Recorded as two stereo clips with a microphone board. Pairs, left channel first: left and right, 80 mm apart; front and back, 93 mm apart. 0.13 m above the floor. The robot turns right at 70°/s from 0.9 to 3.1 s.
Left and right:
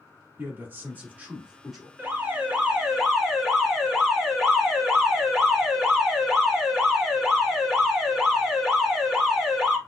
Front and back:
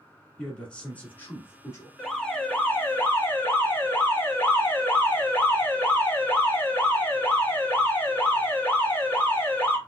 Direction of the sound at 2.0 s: 80° right.